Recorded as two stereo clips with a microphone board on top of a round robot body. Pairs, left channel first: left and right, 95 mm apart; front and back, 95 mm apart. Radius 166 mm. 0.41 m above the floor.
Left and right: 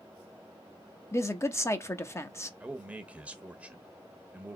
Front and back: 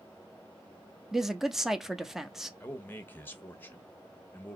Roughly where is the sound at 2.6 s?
Ahead right.